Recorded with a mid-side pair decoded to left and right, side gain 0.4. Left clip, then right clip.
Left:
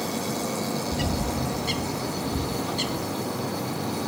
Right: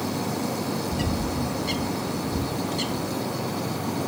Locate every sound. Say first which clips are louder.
0.9 s a bird: even; 30° left, 1.0 m